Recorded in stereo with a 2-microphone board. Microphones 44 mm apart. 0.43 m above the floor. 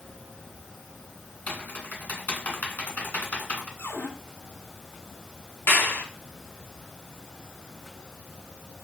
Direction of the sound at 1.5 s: 40° left (ahead or behind).